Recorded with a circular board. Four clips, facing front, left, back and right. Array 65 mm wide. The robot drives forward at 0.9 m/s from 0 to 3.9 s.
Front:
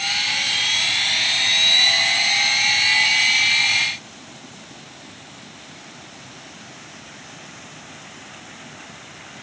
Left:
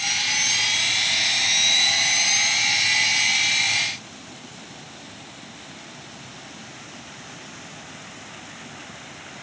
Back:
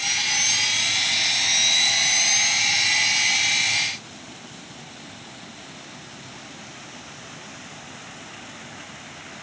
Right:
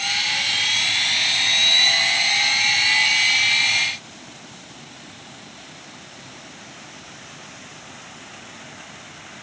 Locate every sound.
Only background noise.